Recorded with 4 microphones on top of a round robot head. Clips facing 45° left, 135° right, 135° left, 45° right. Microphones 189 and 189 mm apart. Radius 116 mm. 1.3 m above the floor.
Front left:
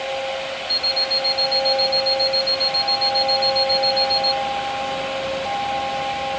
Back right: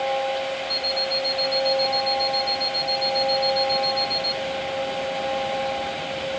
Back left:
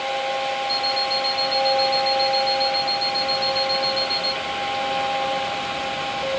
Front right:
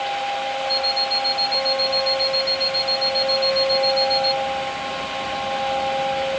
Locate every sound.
0.7 s an alarm clock: 105° left